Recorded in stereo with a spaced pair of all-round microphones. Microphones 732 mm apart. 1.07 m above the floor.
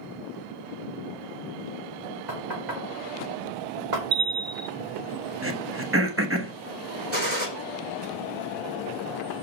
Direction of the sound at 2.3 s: 70° right (ahead or behind).